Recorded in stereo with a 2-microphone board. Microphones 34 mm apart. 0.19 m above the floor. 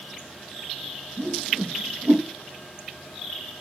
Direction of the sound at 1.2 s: 80° right.